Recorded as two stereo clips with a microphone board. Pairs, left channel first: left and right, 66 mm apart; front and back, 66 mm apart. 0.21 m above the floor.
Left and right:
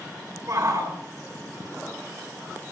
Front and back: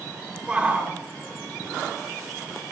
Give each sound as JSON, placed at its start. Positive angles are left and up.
{"t": 0.5, "sound": "a shout", "azimuth_deg": -110, "distance_m": 3.0}